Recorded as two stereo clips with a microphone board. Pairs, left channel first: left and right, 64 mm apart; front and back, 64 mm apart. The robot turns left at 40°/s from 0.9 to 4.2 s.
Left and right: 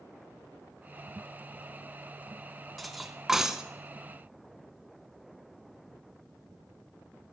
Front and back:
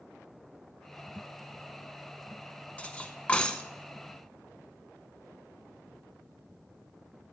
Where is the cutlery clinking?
5° right, 0.6 m; by 3.6 s 40° right, 0.6 m.